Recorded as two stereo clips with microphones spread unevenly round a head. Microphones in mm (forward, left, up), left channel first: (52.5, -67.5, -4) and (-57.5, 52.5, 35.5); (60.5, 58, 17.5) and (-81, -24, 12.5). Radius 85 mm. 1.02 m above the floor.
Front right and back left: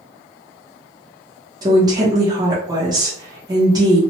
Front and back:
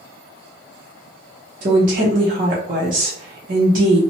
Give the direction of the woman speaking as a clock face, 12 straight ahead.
5 o'clock.